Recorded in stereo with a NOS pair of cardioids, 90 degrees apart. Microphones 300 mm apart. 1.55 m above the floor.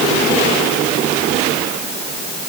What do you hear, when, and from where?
Only background noise.